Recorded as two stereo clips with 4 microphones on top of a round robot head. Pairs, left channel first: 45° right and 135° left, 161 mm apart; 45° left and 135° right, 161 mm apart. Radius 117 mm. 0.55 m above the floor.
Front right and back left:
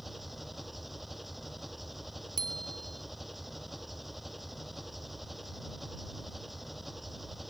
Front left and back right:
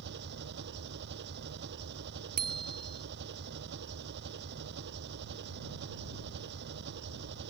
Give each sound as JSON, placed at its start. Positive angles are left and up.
{"t": 0.0, "sound": "an engine running", "azimuth_deg": -135}
{"t": 2.4, "sound": "a bicycle bell", "azimuth_deg": -160}